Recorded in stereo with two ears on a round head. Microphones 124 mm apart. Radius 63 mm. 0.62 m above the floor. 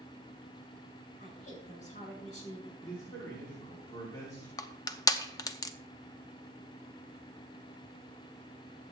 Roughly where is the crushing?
Left.